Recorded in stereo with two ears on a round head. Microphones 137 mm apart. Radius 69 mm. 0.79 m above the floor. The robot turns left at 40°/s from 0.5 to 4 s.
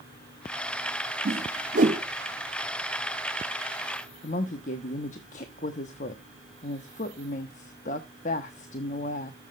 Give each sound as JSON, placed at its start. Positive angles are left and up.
{"t": 1.2, "sound": "a whoosh", "side_deg": -65, "distance_m": 1.2}
{"t": 4.2, "sound": "a woman speaking", "side_deg": 55, "distance_m": 1.0}